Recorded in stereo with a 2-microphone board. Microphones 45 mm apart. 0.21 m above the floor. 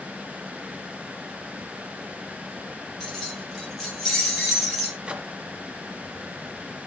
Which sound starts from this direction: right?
A microwave, at 5.1 s.